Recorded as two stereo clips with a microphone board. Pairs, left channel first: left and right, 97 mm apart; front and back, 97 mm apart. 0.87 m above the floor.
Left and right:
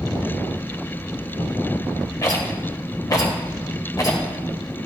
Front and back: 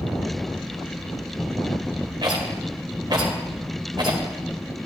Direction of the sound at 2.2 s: 140° left.